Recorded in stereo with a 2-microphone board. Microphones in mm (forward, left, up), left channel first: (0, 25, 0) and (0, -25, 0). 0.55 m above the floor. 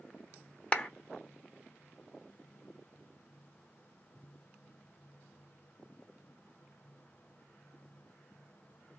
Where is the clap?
20° left (ahead or behind), 0.6 m.